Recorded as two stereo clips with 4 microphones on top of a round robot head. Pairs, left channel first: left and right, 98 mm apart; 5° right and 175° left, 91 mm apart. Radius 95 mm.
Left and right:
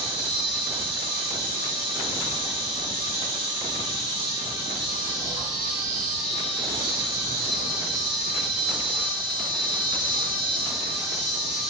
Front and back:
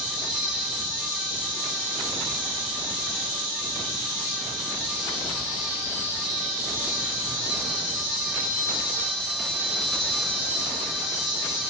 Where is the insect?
25° left, 1.4 m.